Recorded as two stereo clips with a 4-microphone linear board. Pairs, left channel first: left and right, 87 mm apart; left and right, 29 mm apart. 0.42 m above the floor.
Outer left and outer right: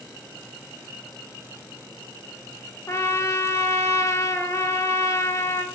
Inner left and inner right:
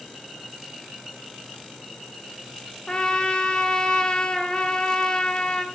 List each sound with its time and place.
2.9 s a trumpet: 35° left (ahead or behind), 0.5 m